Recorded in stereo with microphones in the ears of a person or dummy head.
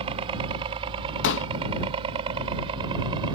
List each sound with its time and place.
0.0 s a helicopter: 35° right (ahead or behind); by 3.3 s 30° right (ahead or behind)
1.2 s a pop: 60° left (ahead or behind)